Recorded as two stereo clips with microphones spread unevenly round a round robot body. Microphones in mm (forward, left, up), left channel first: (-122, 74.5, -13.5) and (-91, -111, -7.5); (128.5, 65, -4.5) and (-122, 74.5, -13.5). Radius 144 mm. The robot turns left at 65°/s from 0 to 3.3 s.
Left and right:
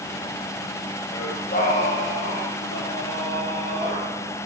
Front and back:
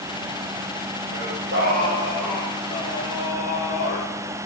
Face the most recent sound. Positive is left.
turn(degrees=25)